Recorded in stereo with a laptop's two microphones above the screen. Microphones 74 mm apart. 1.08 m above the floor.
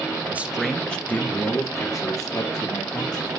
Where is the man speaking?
25° right (ahead or behind), 0.7 m; by 3.3 s 60° left (ahead or behind), 2 m.